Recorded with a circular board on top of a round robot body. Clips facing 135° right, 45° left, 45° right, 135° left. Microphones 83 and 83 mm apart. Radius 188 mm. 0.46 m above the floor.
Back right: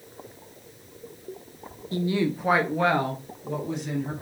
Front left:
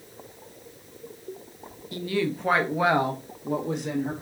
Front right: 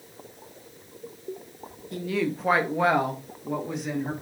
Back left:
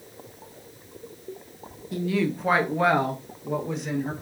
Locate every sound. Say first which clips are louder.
1.9 s a woman speaking: back right 2 dB, back left 2 dB; 140° right, 1.0 m; by 4.1 s 40° left, 1.3 m